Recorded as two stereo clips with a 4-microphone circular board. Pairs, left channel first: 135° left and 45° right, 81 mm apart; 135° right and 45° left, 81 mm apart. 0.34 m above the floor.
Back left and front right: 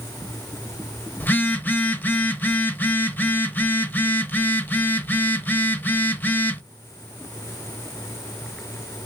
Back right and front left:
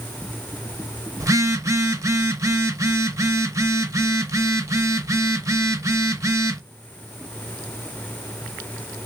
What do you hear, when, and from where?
1.2 s a phone buzzing: 75° left, 0.6 m